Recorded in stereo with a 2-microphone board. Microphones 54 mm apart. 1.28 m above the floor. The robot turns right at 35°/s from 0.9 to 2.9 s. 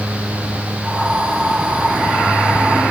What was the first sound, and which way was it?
Only background noise.